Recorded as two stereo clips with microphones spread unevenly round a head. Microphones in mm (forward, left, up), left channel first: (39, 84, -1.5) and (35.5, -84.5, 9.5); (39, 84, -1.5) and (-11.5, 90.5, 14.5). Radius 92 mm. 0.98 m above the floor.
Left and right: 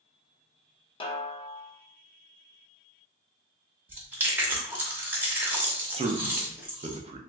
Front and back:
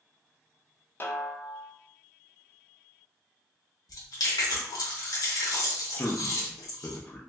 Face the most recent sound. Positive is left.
turn(degrees=-40)